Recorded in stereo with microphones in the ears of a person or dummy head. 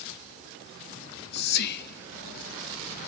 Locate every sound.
1.0 s whispering: 60° left (ahead or behind), 1.0 m